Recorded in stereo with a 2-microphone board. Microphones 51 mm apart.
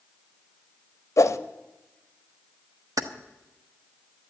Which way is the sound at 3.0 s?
80° right.